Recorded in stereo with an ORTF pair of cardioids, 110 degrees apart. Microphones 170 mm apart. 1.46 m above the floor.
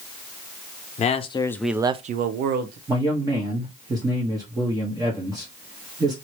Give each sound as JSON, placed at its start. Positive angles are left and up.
{"t": 1.0, "sound": "a man speaking", "azimuth_deg": 45, "distance_m": 0.8}
{"t": 2.9, "sound": "a man speaking", "azimuth_deg": -20, "distance_m": 1.0}